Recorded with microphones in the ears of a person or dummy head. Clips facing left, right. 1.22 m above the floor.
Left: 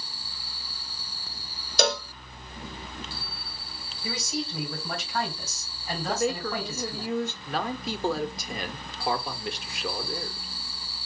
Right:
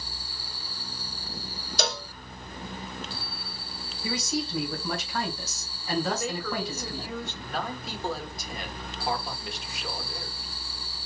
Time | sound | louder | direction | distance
1.8 | a cowbell | left 6 dB | 55° left (ahead or behind) | 0.6 m
4.0 | a man speaking | right 2 dB | 60° right (ahead or behind) | 3 m
6.1 | a woman speaking | left 3 dB | 30° left (ahead or behind) | 0.8 m
7.5 | a man speaking | left 3 dB | 60° left (ahead or behind) | 1.1 m